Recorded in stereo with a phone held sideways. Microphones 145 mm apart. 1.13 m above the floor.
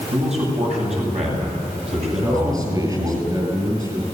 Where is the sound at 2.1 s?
25° right (ahead or behind), 9.5 m.